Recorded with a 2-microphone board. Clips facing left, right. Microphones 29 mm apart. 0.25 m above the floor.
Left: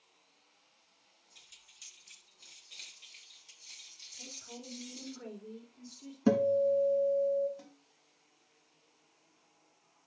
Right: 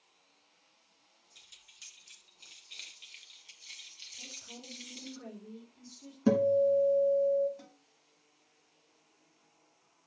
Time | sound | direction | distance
1.4 | keys jangling | 10° right (ahead or behind) | 2.5 m
4.1 | a woman speaking | 20° left (ahead or behind) | 4.5 m
6.3 | a guitar | 5° left (ahead or behind) | 1.3 m
7.6 | a snare drum | 10° right (ahead or behind) | 2.0 m